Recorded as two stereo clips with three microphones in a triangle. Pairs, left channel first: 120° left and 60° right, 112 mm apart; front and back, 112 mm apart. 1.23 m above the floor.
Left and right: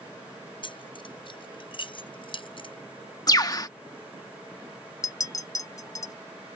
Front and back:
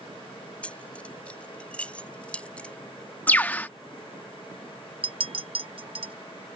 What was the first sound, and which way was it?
Keys jangling, 80° left.